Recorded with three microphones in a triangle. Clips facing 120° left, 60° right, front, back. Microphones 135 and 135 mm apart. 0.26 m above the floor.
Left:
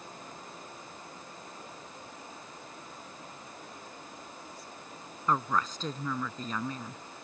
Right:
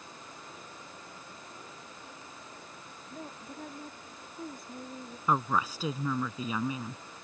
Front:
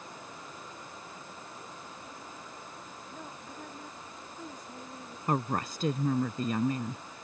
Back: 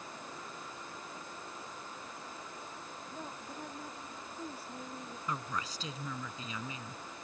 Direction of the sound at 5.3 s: 20° left.